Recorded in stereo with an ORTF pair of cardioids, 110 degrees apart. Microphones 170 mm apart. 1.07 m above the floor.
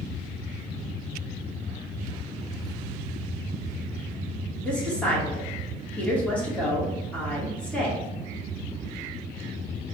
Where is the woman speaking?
5° left, 2.0 m.